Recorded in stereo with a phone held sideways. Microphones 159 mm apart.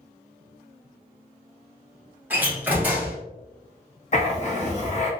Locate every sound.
2.3 s a door slam: 10° right (ahead or behind), 1.1 m
4.1 s writing: 50° left (ahead or behind), 0.7 m